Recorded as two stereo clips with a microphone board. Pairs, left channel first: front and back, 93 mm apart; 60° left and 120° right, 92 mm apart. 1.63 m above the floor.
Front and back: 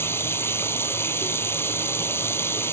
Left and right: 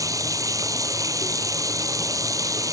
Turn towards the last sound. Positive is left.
turn(degrees=-65)